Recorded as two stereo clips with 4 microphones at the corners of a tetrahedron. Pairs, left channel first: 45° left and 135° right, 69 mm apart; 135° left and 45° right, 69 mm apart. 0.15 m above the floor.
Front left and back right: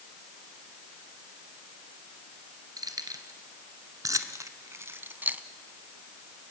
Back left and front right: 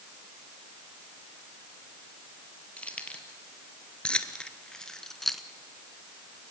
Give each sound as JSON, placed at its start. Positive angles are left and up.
{"t": 2.8, "sound": "keys jangling", "azimuth_deg": -150, "distance_m": 1.8}